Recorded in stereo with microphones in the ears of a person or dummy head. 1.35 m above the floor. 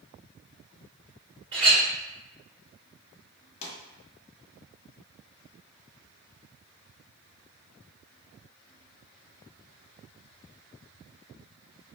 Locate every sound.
1.5 s a clink: 25° right (ahead or behind), 1.9 m
3.6 s a pop: 35° left (ahead or behind), 0.8 m